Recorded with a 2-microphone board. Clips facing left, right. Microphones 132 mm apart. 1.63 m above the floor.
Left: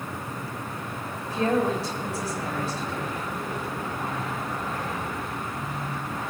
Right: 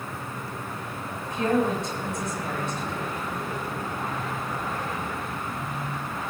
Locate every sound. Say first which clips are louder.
1.3 s a woman speaking: even; 35° left (ahead or behind), 7.5 m